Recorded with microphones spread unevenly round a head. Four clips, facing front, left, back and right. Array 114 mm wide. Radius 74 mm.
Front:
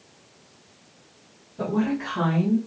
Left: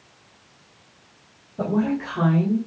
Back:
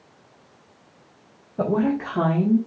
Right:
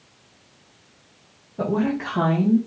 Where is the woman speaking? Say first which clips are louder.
Even, back 3 dB; straight behind, 0.9 m; by 2.6 s 130° right, 1.2 m.